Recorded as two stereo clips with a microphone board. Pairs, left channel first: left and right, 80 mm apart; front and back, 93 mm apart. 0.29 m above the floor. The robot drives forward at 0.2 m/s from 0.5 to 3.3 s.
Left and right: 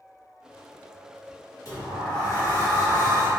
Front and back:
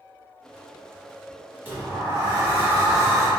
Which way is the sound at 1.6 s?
120° left.